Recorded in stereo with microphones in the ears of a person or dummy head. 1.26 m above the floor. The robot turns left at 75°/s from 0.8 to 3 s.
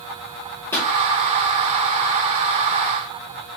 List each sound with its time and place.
0.7 s a pop: 10° left (ahead or behind), 1.1 m; by 0.9 s 5° left (ahead or behind), 1.1 m